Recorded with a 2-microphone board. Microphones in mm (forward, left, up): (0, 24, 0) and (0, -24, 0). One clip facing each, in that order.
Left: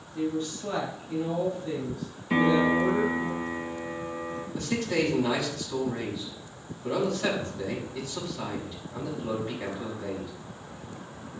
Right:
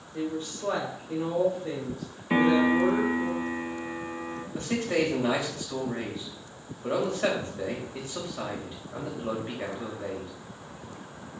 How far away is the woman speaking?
About 3 m.